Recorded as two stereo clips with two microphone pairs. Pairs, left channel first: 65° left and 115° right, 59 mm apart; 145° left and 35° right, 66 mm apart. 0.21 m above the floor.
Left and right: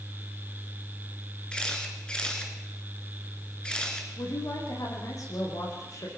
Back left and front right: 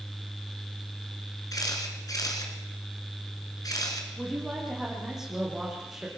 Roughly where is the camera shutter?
Behind left.